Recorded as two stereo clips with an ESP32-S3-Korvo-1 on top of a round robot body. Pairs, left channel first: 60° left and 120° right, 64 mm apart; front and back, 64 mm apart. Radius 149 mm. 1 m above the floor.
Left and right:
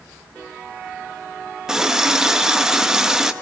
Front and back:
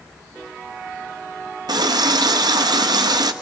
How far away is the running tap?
About 0.7 m.